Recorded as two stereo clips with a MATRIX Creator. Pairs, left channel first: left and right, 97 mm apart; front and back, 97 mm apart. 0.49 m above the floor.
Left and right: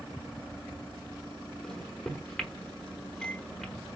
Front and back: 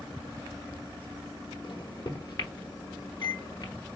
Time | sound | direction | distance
1.6 | a microwave | 5° left | 1.1 m